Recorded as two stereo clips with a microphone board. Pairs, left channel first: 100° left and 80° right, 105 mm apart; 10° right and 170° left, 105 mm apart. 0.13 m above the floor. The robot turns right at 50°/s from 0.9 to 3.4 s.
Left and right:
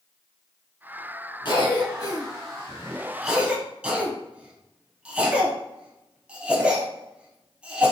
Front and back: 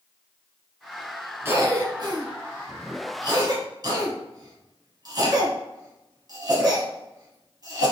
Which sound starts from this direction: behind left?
A cough, at 1.4 s.